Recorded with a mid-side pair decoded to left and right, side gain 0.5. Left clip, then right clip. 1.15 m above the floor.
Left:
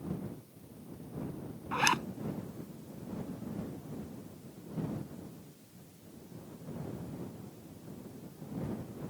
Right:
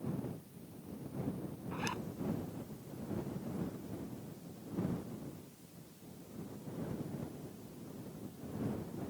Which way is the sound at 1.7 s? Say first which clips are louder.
Left 12 dB; 65° left.